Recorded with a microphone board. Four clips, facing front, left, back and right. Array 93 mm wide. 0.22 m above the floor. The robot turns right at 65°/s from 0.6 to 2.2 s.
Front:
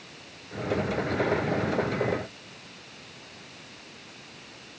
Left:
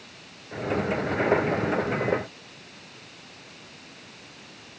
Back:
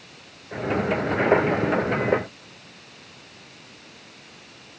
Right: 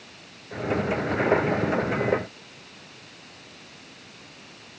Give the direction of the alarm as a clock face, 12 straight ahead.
No alarm in this recording.